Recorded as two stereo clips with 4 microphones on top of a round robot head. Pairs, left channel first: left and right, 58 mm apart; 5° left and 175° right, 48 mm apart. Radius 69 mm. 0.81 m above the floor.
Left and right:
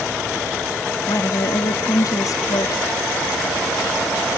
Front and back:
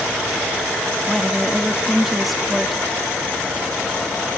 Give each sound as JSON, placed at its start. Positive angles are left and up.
{"t": 1.1, "sound": "a woman speaking", "azimuth_deg": 95}